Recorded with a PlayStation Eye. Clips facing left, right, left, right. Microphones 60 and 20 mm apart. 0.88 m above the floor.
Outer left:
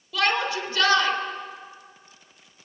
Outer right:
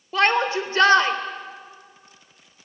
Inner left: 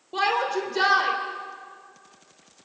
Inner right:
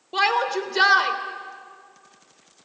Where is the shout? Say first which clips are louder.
Outer right 4 dB, inner right 3 dB; 35° right (ahead or behind), 3 m.